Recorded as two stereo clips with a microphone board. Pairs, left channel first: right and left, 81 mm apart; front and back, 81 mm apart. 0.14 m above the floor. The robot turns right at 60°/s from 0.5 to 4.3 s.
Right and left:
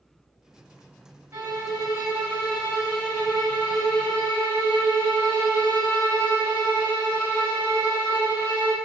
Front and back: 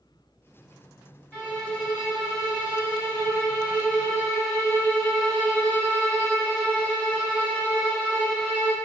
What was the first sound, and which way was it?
A violin, 75° left.